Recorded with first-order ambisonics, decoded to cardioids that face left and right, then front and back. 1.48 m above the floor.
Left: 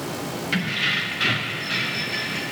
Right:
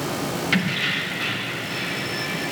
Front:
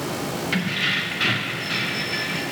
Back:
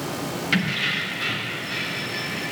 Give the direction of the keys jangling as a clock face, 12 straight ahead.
5 o'clock.